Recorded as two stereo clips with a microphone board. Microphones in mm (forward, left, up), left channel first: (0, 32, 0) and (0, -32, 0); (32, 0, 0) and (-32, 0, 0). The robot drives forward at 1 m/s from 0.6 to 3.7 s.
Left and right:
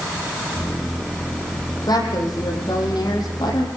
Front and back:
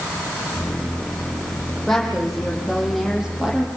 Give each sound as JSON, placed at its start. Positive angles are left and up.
{"t": 1.9, "sound": "a woman speaking", "azimuth_deg": 80, "distance_m": 8.5}